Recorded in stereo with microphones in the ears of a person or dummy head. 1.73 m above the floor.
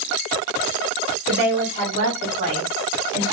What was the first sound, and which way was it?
A woman speaking, 65° right (ahead or behind).